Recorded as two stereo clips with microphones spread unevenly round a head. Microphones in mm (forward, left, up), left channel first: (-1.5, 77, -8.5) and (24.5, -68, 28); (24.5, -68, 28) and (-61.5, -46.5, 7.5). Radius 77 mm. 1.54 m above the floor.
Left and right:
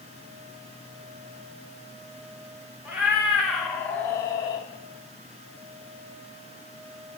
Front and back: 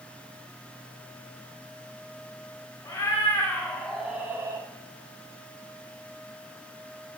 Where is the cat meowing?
15° right, 1.6 m; by 4.7 s 155° left, 1.1 m.